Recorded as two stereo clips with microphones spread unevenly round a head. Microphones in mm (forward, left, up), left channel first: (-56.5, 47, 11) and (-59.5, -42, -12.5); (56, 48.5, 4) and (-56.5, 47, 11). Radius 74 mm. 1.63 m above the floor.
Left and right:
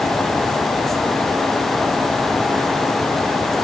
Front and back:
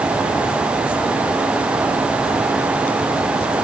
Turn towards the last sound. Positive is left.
No sound to turn to.